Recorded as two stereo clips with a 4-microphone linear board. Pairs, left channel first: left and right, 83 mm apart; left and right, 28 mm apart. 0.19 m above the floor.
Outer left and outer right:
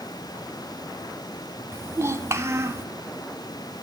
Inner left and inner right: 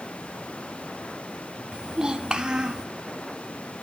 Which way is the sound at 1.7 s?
35° right (ahead or behind).